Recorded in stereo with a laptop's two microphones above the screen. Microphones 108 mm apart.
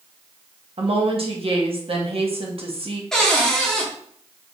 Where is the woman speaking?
55° right (ahead or behind), 1.2 m.